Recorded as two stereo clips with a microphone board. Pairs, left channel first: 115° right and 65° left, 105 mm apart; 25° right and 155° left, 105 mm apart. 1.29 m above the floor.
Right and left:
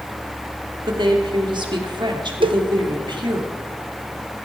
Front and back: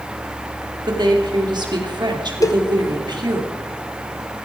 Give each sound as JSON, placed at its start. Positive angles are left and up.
{"t": 0.8, "sound": "a woman speaking", "azimuth_deg": 110, "distance_m": 3.0}
{"t": 2.4, "sound": "a cowbell", "azimuth_deg": 35, "distance_m": 1.0}